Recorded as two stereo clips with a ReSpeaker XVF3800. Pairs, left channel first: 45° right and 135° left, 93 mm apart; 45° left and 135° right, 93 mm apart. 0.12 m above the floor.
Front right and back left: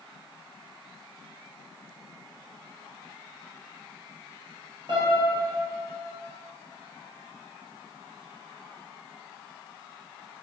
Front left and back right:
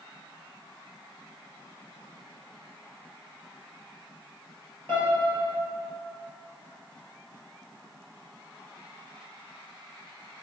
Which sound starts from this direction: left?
A piano, at 4.9 s.